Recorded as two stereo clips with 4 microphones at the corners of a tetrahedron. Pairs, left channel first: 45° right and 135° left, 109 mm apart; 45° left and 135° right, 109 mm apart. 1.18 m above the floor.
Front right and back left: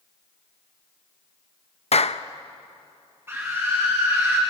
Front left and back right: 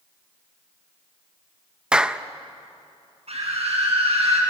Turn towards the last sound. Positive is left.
turn(degrees=-155)